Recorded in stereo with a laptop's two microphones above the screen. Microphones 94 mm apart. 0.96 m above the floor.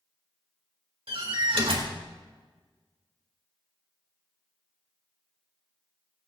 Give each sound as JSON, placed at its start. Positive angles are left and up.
{"t": 1.1, "sound": "a door slam", "side_deg": -80, "distance_m": 2.0}